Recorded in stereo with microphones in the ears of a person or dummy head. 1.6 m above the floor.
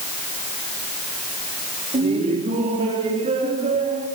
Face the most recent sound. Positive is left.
turn(degrees=-40)  # may be behind; listen again after turning